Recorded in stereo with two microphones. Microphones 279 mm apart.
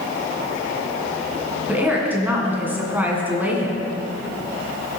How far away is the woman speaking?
About 2.5 m.